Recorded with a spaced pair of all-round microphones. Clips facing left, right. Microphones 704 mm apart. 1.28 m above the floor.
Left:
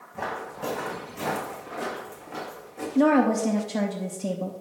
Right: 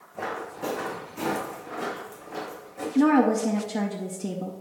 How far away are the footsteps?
About 3 m.